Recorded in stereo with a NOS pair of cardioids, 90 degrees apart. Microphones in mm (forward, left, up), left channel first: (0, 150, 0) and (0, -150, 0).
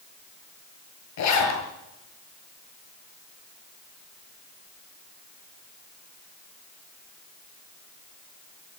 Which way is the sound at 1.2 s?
65° left.